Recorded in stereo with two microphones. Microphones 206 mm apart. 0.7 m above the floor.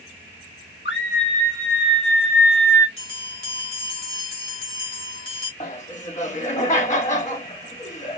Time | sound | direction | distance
0.8 | a scream | 70° left (ahead or behind) | 2 m
3.0 | a bell | 85° left | 1.4 m
5.6 | laughter | 35° left (ahead or behind) | 1.7 m